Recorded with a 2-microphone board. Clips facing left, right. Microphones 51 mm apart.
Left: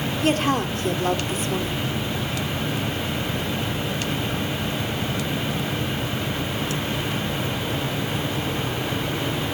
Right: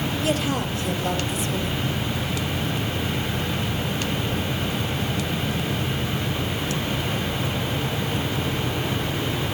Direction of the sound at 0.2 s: 50° left (ahead or behind).